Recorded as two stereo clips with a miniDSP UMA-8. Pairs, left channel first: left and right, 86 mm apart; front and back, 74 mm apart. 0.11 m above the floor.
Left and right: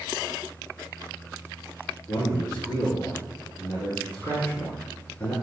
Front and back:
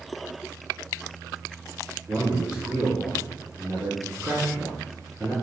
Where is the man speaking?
115° left, 1.3 m.